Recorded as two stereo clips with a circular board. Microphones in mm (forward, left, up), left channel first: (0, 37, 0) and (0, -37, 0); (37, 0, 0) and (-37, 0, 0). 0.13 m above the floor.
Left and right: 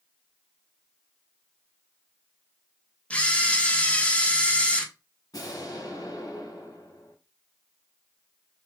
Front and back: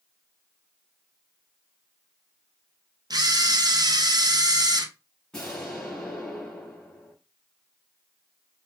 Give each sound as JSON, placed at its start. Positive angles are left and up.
{"t": 3.1, "sound": "a camera shutter", "azimuth_deg": 165, "distance_m": 0.8}
{"t": 5.3, "sound": "an explosion", "azimuth_deg": 80, "distance_m": 3.0}